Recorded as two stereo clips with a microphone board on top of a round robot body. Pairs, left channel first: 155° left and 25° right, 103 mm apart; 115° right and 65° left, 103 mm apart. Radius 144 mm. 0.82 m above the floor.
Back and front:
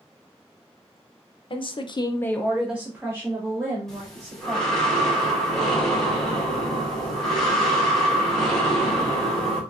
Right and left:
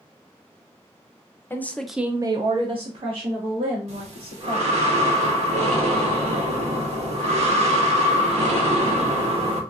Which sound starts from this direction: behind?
A woman speaking, at 1.5 s.